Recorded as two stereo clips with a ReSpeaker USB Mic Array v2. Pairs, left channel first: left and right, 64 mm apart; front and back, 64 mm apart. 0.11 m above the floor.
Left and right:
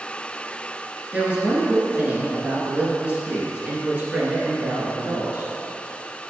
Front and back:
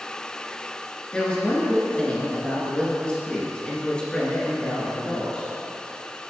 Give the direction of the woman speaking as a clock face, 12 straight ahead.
2 o'clock.